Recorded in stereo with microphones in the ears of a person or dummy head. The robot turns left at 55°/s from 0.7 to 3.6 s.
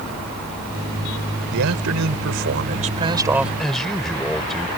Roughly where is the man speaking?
Right.